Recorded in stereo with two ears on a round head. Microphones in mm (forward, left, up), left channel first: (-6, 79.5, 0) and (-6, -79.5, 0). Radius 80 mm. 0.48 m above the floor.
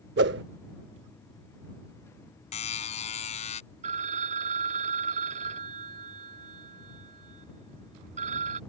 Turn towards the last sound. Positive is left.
turn(degrees=-45)  # may be behind; listen again after turning